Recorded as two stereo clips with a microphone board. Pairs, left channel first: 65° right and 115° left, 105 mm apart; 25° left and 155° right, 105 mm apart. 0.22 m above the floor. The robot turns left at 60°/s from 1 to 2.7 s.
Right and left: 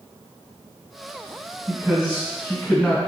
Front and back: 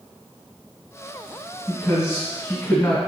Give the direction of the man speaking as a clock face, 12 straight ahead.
10 o'clock.